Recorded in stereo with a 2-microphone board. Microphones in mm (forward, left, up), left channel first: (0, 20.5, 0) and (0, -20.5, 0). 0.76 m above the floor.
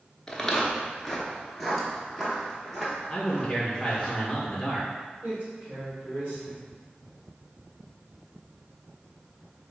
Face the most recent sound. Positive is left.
turn(degrees=-40)  # may be behind; listen again after turning